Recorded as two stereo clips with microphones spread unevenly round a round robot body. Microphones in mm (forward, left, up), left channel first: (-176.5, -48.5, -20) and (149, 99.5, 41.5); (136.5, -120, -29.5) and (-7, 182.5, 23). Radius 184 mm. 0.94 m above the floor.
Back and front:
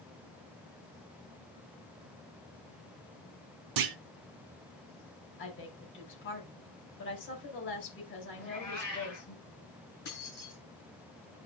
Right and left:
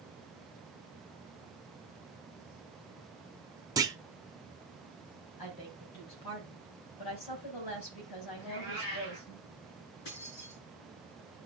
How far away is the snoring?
No snoring in this recording.